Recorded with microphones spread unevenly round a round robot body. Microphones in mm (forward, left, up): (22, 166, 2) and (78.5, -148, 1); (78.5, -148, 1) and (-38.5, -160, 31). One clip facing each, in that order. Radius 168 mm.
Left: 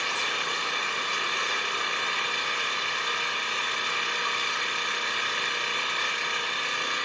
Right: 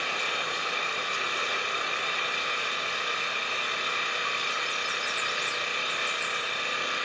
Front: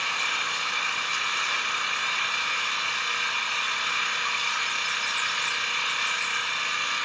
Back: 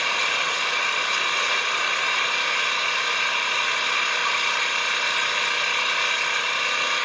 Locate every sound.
0.0 s an engine running: straight behind, 0.9 m